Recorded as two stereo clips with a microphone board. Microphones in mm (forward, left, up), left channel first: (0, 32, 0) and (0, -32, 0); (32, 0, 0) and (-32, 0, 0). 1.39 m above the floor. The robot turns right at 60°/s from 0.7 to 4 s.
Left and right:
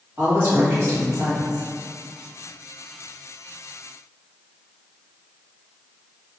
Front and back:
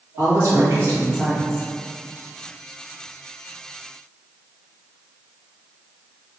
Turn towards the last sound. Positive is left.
turn(degrees=55)